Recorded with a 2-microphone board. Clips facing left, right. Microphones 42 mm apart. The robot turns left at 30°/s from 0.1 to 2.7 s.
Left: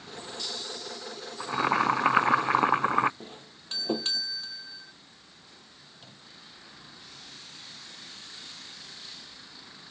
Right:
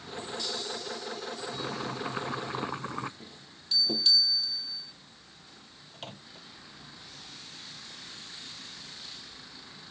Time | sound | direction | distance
1.4 | boiling | 100° left | ?
3.2 | a doorbell | 45° left (ahead or behind) | ?
5.9 | a microwave | 70° right (ahead or behind) | ?